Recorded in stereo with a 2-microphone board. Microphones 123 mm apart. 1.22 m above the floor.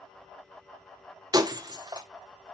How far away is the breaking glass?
About 1.1 m.